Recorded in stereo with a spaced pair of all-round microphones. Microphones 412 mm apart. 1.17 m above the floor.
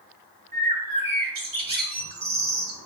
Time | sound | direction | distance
0.5 | a bird | 50° right (ahead or behind) | 0.6 m